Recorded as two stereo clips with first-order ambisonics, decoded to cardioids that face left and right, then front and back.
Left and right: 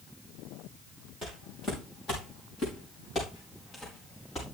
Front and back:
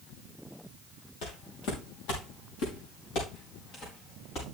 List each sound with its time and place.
1.2 s footsteps: 10° left, 4 m; by 4.4 s 30° left, 6.5 m